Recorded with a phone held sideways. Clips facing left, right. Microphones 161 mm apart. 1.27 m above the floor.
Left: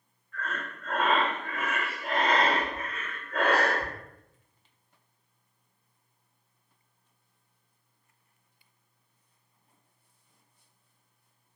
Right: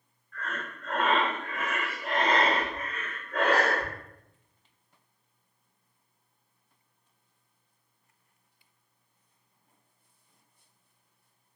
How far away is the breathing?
About 1.9 m.